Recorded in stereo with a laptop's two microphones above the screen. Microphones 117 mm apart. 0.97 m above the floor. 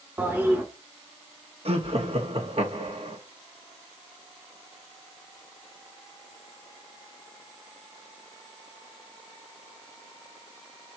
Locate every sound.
0.2 s a toilet flushing: 15° right (ahead or behind), 1.3 m
1.6 s laughter: 55° right (ahead or behind), 1.6 m